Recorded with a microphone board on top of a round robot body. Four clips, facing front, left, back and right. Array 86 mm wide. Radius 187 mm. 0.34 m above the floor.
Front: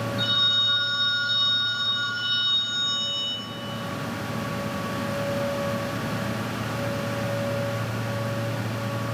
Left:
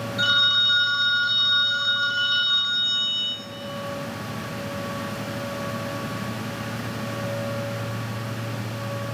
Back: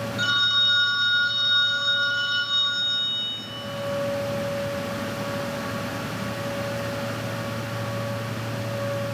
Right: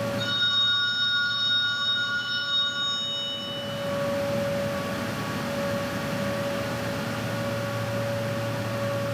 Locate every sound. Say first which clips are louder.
0.2 s a phone ringing: left 5 dB, back 4 dB; 110° left, 3 m